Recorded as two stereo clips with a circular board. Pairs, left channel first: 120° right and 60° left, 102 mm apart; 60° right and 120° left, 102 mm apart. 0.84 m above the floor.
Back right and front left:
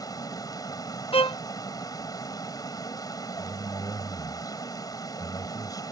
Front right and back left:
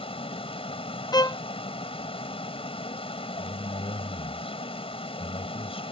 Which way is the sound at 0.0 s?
70° right.